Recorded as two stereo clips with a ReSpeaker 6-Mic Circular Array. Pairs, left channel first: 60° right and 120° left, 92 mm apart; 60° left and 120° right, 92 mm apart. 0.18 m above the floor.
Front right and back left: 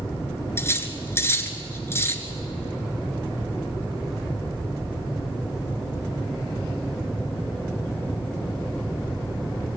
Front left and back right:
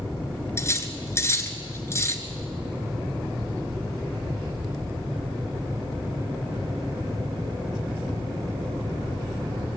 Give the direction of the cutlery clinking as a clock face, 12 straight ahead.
12 o'clock.